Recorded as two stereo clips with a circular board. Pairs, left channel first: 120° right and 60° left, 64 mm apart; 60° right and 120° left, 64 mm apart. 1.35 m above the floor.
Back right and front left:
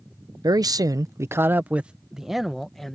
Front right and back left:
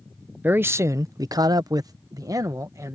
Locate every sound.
0.4 s a man speaking: 60° left; by 3.0 s 155° left